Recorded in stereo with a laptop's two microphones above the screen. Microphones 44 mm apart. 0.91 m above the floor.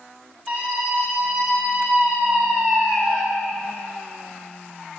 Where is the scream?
5° left (ahead or behind), 6.5 m; by 3.2 s 30° left (ahead or behind), 2.5 m.